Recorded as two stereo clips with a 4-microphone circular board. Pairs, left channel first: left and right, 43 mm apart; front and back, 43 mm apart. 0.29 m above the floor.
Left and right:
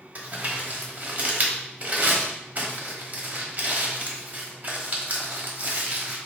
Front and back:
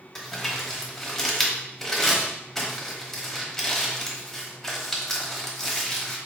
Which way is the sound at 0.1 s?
80° right.